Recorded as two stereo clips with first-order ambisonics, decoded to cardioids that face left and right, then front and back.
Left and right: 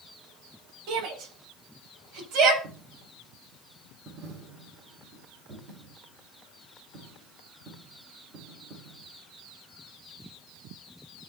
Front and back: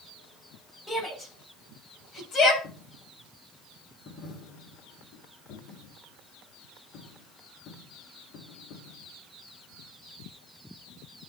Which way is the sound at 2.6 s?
35° right.